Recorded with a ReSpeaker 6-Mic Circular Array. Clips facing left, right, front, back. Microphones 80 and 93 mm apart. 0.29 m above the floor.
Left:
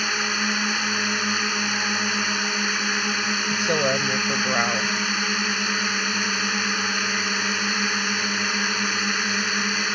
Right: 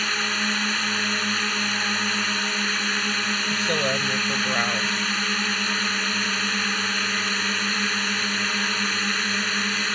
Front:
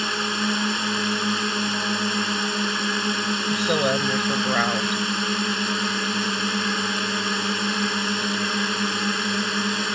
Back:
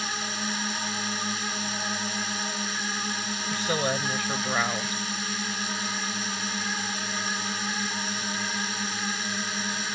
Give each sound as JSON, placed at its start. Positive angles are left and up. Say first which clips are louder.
{"t": 0.0, "sound": "a drone", "louder": "left 1 dB, front 7 dB", "azimuth_deg": 10}
{"t": 3.5, "sound": "a woman speaking", "louder": "left 3 dB, front 5 dB", "azimuth_deg": 30}